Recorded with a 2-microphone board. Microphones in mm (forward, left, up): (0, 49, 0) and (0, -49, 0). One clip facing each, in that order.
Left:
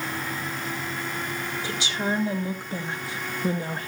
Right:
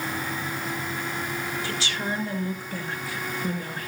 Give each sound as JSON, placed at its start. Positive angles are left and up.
{"t": 1.6, "sound": "a woman speaking", "side_deg": 20, "distance_m": 3.5}